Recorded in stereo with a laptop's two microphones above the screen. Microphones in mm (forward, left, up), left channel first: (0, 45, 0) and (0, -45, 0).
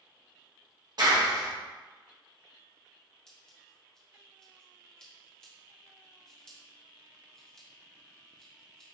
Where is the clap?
50° right (ahead or behind), 1.0 m.